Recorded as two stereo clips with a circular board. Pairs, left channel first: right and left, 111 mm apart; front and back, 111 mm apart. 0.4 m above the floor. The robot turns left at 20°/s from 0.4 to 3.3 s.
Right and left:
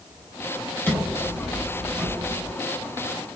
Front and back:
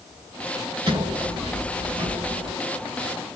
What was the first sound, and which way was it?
A sliding door, 150° right.